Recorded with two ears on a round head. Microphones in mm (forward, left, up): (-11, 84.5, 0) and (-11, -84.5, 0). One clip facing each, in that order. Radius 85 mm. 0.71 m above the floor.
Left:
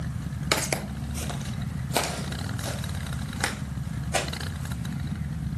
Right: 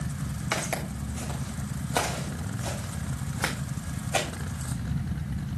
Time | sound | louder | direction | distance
0.5 | footsteps | left 4 dB | 45° left (ahead or behind) | 0.9 m